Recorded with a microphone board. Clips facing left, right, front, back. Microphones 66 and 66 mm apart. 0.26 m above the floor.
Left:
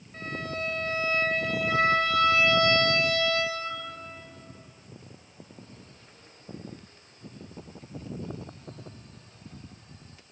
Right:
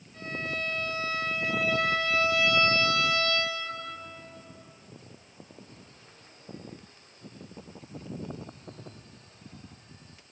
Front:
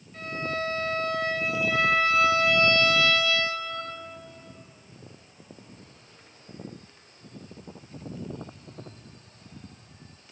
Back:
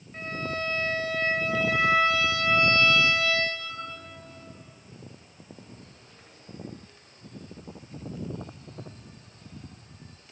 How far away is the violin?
About 2.5 m.